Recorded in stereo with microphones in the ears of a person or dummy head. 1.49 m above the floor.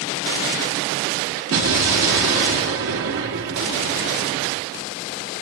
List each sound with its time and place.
1.5 s an explosion: 65° right (ahead or behind), 1.9 m